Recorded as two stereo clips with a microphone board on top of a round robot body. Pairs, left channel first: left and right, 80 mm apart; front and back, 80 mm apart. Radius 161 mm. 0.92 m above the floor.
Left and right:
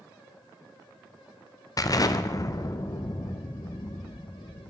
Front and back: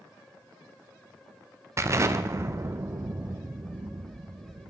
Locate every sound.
1.8 s an explosion: 130° left, 0.5 m